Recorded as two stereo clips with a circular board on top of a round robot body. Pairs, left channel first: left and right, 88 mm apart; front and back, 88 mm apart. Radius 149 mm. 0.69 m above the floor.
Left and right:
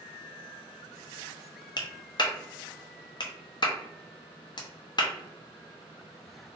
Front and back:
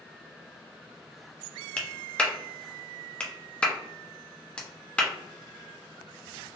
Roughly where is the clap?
Left.